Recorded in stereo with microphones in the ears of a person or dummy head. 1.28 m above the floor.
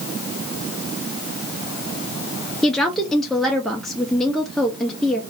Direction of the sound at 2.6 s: Centre (ahead or behind).